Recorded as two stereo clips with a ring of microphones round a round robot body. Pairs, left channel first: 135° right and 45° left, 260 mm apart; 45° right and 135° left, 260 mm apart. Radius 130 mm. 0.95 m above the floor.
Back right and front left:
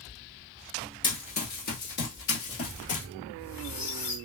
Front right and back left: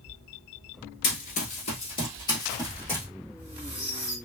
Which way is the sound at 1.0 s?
70° right.